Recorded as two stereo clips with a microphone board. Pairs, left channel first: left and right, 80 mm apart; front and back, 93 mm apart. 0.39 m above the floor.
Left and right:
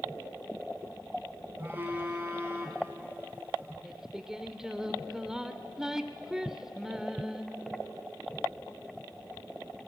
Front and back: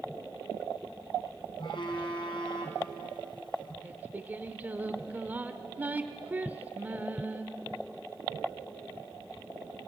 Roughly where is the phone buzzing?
Ahead right.